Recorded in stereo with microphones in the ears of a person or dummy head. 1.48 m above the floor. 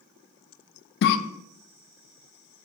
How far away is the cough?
About 0.6 m.